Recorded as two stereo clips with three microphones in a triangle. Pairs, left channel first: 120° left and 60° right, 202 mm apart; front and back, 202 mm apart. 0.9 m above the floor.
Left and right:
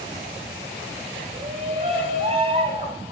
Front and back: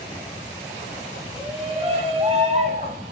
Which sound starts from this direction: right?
A shout, at 1.3 s.